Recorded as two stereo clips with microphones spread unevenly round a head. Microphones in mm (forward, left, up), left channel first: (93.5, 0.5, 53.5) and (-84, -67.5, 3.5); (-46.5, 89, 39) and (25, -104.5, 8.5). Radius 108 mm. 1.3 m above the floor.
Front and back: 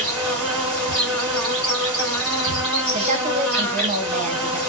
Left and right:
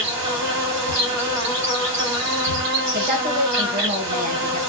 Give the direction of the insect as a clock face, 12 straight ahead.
2 o'clock.